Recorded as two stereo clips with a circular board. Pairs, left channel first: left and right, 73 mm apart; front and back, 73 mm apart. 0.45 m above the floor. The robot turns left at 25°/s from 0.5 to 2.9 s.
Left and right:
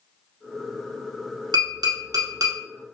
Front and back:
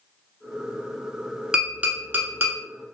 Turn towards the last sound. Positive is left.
turn(degrees=-135)